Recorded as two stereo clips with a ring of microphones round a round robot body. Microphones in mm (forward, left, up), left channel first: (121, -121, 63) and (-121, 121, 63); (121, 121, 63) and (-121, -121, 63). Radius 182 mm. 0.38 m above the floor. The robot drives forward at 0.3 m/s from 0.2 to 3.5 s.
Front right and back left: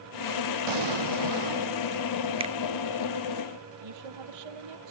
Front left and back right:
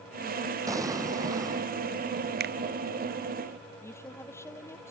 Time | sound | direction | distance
0.7 | an explosion | 145° left | ?
2.4 | a finger snap | 165° right | ?
3.8 | a woman speaking | 130° left | ?